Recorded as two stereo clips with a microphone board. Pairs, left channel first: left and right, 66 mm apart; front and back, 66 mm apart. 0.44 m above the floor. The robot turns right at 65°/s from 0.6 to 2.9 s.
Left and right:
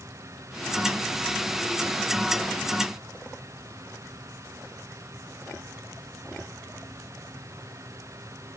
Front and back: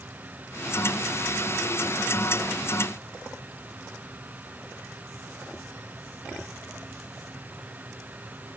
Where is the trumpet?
I don't hear a trumpet.